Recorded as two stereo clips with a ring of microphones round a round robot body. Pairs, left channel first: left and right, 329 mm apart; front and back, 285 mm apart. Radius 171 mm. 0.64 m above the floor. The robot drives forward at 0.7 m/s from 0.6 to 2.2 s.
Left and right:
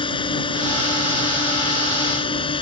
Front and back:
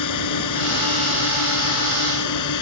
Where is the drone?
15° left.